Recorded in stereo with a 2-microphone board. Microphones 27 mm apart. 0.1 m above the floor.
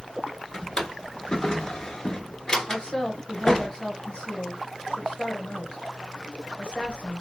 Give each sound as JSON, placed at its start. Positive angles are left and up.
{"t": 0.5, "sound": "a drawer", "side_deg": 20, "distance_m": 0.9}
{"t": 2.7, "sound": "a woman speaking", "side_deg": 35, "distance_m": 1.4}